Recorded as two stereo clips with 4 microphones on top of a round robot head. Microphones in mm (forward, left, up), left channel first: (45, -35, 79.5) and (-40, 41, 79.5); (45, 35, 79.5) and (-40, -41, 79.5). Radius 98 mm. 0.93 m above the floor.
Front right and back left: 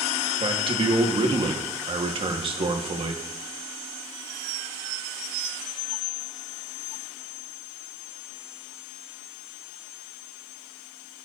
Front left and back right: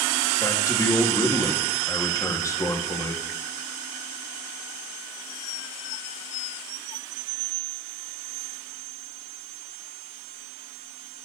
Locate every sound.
0.4 s a man speaking: 100° left, 1.7 m